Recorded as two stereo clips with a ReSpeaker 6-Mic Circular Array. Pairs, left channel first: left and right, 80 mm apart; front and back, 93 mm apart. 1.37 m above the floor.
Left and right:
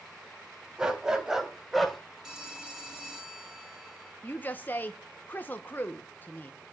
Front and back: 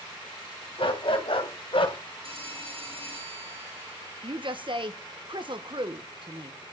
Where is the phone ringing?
175° right, 6.5 m.